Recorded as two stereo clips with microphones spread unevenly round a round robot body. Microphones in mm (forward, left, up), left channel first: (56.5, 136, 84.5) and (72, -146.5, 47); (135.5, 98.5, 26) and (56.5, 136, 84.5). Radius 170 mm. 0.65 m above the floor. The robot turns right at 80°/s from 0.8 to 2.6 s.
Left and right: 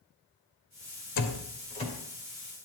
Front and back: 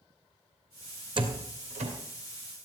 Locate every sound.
1.2 s a door slam: 115° left, 2.5 m; by 1.9 s 175° left, 2.5 m